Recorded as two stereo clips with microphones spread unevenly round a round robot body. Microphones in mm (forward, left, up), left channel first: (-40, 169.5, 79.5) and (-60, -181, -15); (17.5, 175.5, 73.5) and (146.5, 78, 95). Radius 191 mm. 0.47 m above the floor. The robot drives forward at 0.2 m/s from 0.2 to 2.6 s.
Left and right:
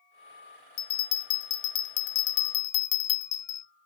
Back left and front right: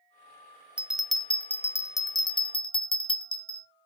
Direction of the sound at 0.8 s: 55° left.